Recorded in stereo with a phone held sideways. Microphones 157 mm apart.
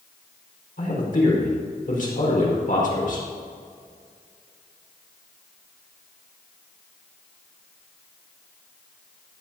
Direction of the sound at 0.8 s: 60° left (ahead or behind).